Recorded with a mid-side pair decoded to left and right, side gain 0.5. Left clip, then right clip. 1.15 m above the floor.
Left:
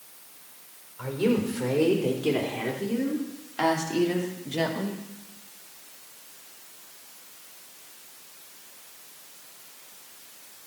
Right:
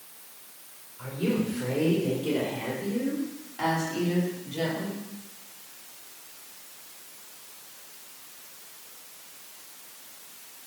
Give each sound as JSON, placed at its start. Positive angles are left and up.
{"t": 1.0, "sound": "a woman speaking", "azimuth_deg": 55, "distance_m": 4.0}